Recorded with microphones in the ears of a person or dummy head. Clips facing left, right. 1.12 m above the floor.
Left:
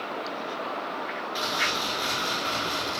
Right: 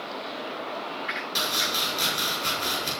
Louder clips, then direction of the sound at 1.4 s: Even; 85° right.